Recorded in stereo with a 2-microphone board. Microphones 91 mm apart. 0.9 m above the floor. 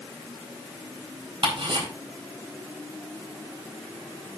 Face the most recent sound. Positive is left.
turn(degrees=-70)  # may be behind; listen again after turning